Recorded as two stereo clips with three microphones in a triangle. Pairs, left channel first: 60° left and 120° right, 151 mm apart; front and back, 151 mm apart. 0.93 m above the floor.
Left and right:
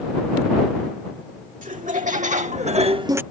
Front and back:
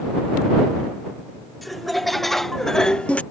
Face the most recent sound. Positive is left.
turn(degrees=-65)